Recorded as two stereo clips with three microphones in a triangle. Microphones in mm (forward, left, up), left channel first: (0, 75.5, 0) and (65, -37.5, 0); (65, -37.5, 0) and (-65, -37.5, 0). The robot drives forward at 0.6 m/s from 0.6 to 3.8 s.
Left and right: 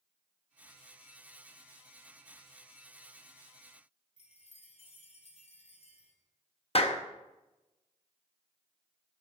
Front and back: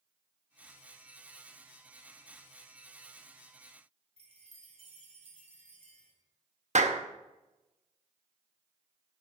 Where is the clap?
160° left, 0.8 m.